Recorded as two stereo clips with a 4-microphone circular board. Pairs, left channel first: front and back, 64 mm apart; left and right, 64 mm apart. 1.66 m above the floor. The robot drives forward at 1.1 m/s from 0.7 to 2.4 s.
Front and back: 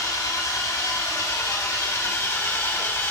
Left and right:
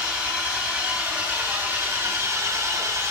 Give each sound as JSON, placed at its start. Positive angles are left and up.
{"t": 0.0, "sound": "an engine running", "azimuth_deg": -20, "distance_m": 3.0}